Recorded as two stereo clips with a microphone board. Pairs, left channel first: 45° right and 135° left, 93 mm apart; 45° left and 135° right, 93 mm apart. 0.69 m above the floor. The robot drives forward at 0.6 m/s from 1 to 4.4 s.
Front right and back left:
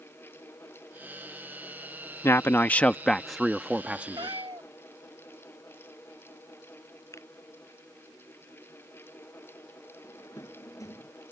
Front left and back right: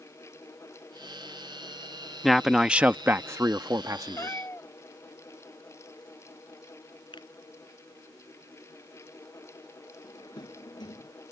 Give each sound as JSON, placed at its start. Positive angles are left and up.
{"t": 2.2, "sound": "a man speaking", "azimuth_deg": -40}
{"t": 4.2, "sound": "a cat meowing", "azimuth_deg": 100}
{"t": 7.1, "sound": "a finger snap", "azimuth_deg": 10}
{"t": 10.0, "sound": "a drawer", "azimuth_deg": 10}